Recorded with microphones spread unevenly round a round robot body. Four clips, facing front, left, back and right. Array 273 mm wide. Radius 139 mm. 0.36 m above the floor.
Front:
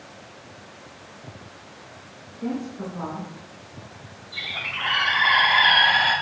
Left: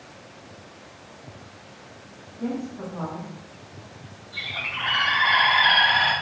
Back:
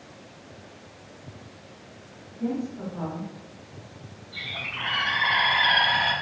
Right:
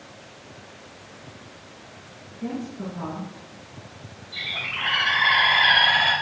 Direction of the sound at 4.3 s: 130° right.